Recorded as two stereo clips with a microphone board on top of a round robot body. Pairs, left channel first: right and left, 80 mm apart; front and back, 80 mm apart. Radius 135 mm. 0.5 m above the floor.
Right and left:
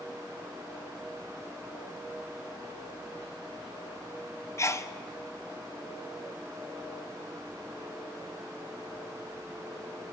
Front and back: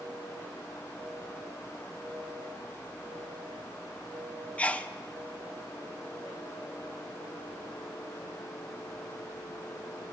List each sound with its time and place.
4.6 s a sneeze: 65° right, 0.8 m